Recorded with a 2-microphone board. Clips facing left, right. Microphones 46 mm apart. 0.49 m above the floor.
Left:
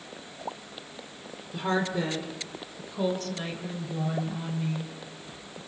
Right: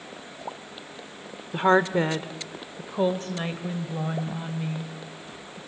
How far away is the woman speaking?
About 1.3 m.